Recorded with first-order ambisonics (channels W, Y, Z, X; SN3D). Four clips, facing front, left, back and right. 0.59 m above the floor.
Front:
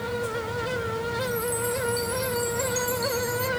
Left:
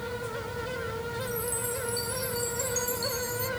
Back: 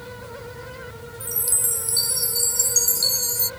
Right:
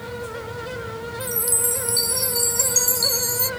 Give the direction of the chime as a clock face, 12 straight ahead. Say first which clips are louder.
Right 6 dB, front 2 dB; 4 o'clock.